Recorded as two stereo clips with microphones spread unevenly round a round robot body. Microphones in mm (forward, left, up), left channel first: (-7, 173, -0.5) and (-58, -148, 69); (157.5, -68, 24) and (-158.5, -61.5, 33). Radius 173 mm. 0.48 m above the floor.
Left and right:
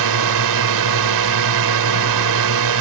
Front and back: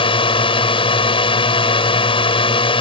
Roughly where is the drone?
Right.